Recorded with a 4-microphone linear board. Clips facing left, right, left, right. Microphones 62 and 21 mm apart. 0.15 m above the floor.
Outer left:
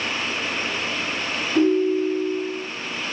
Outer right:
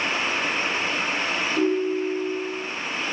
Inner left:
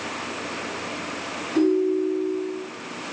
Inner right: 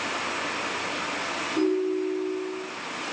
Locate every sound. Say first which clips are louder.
1.6 s a ringtone: outer left 6 dB, inner left 5 dB; 40° left (ahead or behind), 1.9 m